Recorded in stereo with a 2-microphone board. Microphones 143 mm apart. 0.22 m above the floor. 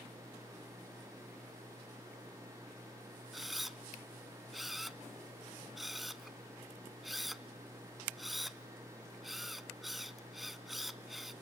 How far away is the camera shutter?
About 0.6 m.